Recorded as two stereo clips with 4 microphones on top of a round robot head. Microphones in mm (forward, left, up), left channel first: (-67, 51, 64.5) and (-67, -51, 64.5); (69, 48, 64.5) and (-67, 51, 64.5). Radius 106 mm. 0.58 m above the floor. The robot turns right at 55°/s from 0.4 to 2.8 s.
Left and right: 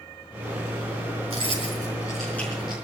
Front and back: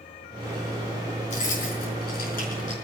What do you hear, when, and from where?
1.3 s keys jangling: 50° right, 5.5 m; by 2.8 s 30° left, 5.5 m